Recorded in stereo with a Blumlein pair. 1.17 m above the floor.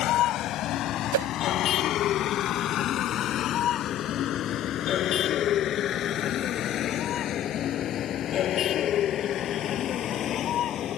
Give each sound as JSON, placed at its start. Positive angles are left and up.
{"t": 0.0, "sound": "a vehicle", "azimuth_deg": 35}
{"t": 1.1, "sound": "a whoosh", "azimuth_deg": -55}